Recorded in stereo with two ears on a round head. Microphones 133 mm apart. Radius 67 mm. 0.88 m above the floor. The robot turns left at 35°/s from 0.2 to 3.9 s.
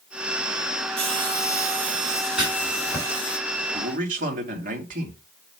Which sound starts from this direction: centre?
Writing, at 2.4 s.